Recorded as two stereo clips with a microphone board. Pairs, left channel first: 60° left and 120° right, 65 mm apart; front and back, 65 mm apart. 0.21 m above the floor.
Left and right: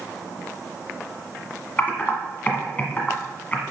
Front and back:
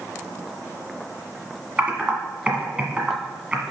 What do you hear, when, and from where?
1.8 s typing on a keyboard: 115° left, 1.6 m